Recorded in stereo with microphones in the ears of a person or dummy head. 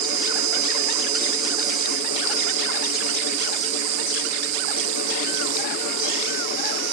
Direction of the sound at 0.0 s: 80° right.